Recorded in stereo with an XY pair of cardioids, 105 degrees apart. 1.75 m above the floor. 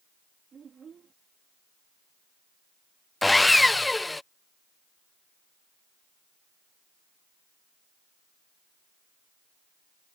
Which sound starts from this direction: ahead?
Sawing, at 3.2 s.